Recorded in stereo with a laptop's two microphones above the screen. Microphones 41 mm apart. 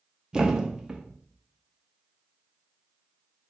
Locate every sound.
0.3 s a thud: 15° right (ahead or behind), 0.5 m